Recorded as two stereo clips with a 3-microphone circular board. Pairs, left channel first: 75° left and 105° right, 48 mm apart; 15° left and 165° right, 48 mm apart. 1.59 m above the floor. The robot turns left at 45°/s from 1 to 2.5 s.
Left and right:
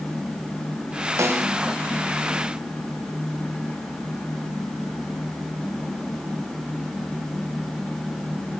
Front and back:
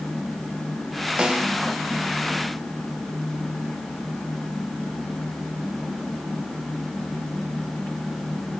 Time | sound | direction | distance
1.2 | a snare drum | 95° right | 4 m